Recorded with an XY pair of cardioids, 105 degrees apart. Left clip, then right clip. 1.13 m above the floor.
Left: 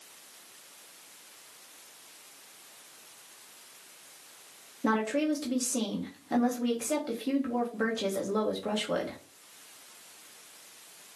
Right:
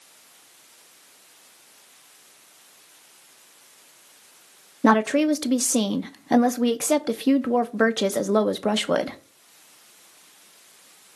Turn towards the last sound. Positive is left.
turn(degrees=-70)